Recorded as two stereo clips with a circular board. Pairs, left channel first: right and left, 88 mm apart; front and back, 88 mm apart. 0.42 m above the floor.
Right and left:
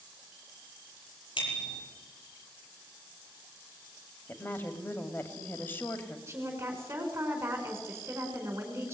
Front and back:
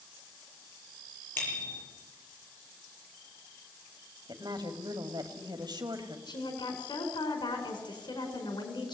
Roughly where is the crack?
I don't hear a crack.